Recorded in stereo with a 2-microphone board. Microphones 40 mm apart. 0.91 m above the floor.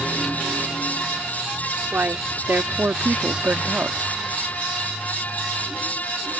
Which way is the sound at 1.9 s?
65° right (ahead or behind).